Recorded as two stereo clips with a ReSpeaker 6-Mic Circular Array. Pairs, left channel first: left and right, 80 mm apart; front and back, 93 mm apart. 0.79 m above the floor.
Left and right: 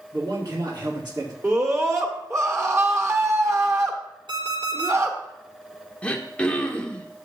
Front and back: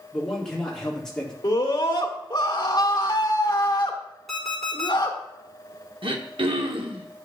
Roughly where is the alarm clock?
Right.